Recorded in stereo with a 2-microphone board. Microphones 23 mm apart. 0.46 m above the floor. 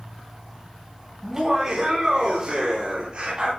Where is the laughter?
20° right (ahead or behind), 3 m; by 3.5 s 40° right (ahead or behind), 3 m.